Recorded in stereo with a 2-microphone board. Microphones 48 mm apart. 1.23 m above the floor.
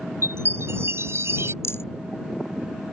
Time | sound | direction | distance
0.2 | a chime | 65° right (ahead or behind) | ?
1.6 | a rattle | 70° left (ahead or behind) | ?